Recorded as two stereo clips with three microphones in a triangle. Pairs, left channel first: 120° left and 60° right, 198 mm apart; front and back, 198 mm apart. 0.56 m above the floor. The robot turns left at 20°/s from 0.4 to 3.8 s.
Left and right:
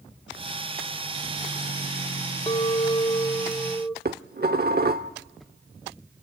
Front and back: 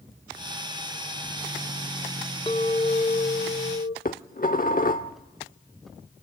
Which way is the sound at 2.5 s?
65° left.